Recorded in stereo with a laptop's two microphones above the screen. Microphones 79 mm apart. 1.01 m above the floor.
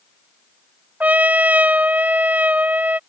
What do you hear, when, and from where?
1.0 s a trumpet: 20° right (ahead or behind)